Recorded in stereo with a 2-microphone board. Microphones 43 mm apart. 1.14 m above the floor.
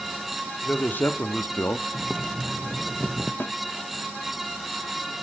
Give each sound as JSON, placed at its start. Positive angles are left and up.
{"t": 0.6, "sound": "a man speaking", "side_deg": 45, "distance_m": 2.5}
{"t": 1.9, "sound": "boiling", "side_deg": 5, "distance_m": 1.2}
{"t": 3.4, "sound": "a snare drum", "side_deg": 55, "distance_m": 1.2}